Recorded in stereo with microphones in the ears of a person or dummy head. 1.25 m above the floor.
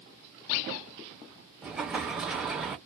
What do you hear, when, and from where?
1.6 s an explosion: 5° right (ahead or behind), 0.6 m